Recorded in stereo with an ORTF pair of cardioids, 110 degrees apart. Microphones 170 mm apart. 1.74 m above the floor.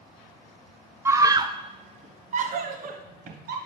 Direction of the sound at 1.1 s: 15° right.